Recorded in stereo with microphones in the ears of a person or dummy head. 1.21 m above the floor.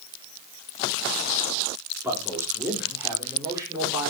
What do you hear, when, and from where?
2.0 s a man speaking: 15° right (ahead or behind), 4 m; by 4.1 s 20° right (ahead or behind), 5 m